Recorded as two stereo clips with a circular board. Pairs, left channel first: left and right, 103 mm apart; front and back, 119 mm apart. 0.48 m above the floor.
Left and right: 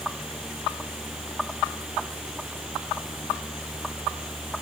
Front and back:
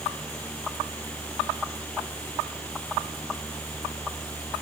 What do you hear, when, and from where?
Only background noise.